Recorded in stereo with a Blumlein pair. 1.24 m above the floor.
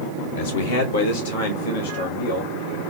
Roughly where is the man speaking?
Ahead left.